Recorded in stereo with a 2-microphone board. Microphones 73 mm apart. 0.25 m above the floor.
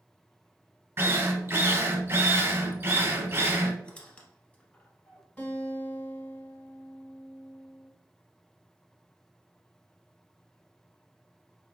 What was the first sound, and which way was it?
A drill, 30° right (ahead or behind).